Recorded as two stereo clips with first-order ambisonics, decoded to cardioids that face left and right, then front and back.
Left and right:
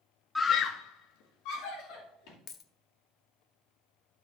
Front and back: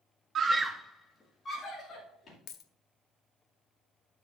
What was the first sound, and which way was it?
A scream, 165° left.